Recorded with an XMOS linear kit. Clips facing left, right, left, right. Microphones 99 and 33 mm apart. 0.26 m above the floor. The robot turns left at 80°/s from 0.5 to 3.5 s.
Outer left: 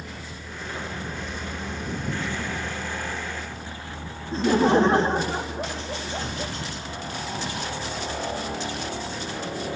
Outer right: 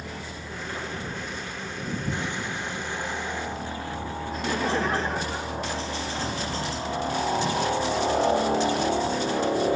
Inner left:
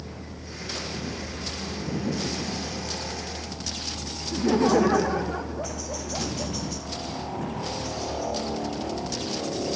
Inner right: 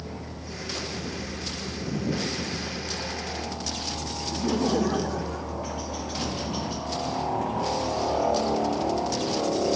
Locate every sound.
0.0 s a helicopter: 155° right; by 9.8 s 35° right
4.3 s laughter: 30° left (ahead or behind)